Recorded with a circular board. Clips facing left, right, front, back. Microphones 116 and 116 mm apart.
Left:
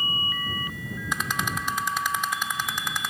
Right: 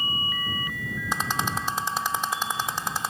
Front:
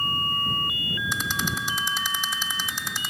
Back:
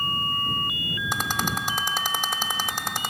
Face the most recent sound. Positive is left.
turn(degrees=-145)